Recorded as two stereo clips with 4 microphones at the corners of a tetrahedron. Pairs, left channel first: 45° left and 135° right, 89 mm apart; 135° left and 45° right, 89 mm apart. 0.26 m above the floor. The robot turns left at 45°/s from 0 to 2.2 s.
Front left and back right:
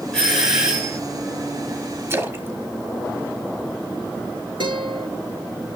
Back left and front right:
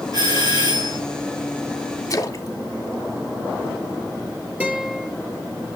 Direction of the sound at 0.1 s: 35° right.